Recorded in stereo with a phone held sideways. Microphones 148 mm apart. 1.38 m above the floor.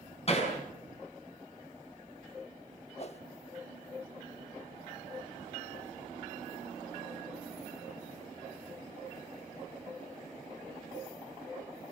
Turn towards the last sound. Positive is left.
turn(degrees=45)  # may be behind; listen again after turning